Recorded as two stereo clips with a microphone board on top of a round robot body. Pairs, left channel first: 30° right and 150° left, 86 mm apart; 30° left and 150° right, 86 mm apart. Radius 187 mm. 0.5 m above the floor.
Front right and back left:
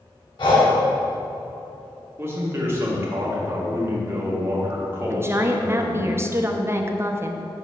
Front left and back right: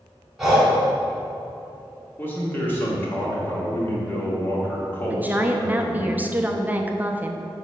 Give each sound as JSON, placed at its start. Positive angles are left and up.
{"t": 0.4, "sound": "breathing", "azimuth_deg": -65, "distance_m": 1.6}
{"t": 2.2, "sound": "a man speaking", "azimuth_deg": 90, "distance_m": 2.5}
{"t": 5.1, "sound": "a woman speaking", "azimuth_deg": 165, "distance_m": 0.9}